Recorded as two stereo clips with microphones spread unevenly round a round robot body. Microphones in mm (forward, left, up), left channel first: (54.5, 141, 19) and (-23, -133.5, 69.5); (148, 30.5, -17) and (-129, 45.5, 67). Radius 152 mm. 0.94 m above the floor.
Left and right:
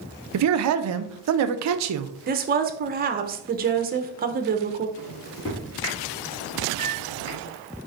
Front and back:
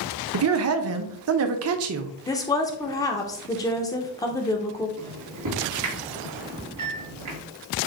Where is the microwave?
150° left, 1.9 m.